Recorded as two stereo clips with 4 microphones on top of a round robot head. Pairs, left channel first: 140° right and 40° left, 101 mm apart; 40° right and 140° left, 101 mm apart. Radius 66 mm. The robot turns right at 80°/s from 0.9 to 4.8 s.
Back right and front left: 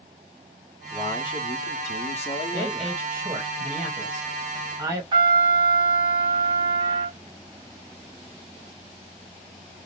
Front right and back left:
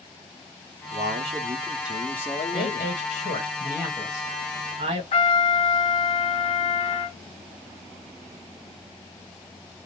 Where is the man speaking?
145° left, 0.8 m; by 3.0 s 50° right, 0.8 m.